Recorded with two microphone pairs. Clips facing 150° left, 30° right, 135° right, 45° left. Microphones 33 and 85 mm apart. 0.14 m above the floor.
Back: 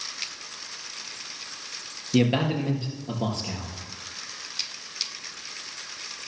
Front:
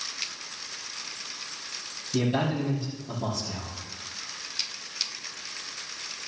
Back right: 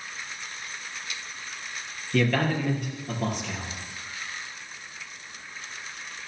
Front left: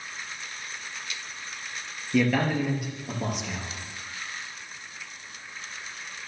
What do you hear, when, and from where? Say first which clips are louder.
2.1 s a man speaking: back 4 dB, front left 1 dB; 120° left, 3.5 m